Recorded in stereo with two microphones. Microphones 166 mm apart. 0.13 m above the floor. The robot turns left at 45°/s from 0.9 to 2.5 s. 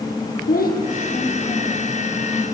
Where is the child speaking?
60° left (ahead or behind), 4 m; by 2.1 s 15° left (ahead or behind), 4 m.